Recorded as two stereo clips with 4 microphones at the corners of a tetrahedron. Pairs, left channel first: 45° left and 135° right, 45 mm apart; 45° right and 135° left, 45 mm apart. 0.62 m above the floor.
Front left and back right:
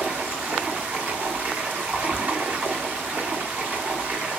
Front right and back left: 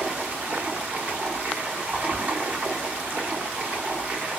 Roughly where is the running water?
Behind.